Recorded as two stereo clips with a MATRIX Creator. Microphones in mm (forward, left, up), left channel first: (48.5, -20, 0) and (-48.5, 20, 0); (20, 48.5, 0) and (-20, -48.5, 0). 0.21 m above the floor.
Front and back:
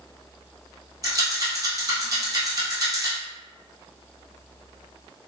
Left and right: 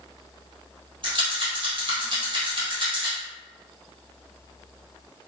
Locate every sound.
1.0 s a rattle: 145° right, 1.6 m